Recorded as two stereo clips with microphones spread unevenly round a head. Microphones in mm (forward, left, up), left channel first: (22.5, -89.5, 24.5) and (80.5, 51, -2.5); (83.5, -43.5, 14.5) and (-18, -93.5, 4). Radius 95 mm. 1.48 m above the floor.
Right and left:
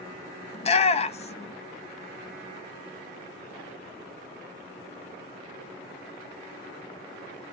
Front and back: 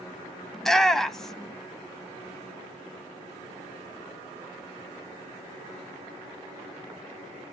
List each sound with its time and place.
0.5 s a shout: 60° right, 0.9 m